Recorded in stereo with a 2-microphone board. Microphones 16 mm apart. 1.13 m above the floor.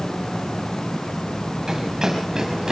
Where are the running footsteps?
35° right (ahead or behind), 6.5 m; by 2.7 s 45° right (ahead or behind), 5.5 m.